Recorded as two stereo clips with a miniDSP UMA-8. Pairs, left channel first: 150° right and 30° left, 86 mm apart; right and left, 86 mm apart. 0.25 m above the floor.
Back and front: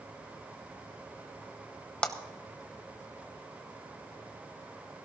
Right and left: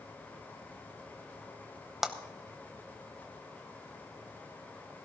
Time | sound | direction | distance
2.0 | a clap | 165° left | 1.0 m